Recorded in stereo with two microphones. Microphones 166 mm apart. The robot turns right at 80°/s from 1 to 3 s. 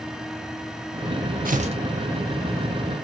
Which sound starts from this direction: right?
Tearing paper, at 1.4 s.